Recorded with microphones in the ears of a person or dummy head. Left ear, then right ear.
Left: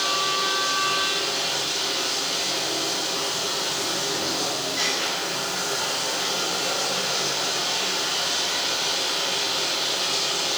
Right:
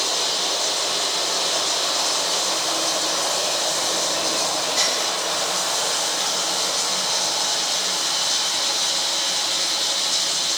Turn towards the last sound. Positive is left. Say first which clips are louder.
# right 1 dB
turn(degrees=-45)  # may be behind; listen again after turning